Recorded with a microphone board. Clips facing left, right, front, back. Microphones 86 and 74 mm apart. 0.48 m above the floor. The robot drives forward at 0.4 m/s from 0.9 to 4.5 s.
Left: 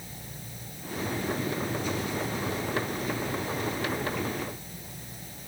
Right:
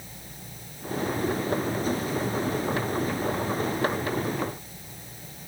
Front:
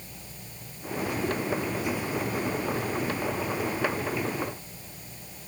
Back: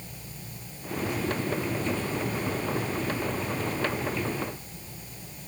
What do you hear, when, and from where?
Only background noise.